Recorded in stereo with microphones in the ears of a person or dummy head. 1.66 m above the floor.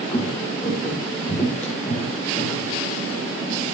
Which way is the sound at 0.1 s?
10° left (ahead or behind).